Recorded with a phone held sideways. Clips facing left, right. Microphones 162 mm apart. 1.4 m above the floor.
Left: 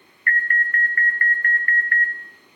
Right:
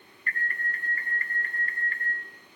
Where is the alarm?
65° left (ahead or behind), 0.8 m.